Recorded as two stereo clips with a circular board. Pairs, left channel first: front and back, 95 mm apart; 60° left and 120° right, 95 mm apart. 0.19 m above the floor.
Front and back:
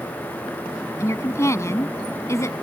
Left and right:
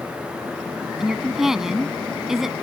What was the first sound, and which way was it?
A woman speaking, 35° right.